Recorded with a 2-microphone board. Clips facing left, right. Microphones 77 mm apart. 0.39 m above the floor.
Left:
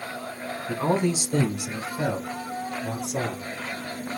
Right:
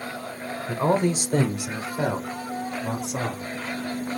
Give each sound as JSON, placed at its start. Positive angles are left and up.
{"t": 0.7, "sound": "a man speaking", "side_deg": -20, "distance_m": 0.9}